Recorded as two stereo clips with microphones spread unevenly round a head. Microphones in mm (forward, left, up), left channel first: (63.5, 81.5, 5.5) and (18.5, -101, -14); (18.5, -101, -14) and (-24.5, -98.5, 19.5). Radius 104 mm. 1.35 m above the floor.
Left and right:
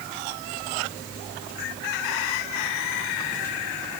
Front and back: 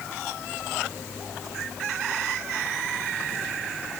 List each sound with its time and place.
Only background noise.